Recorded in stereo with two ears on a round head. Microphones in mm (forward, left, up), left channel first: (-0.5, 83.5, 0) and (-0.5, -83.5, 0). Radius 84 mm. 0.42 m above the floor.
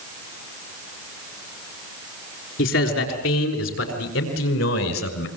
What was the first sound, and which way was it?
A man speaking, 75° left (ahead or behind).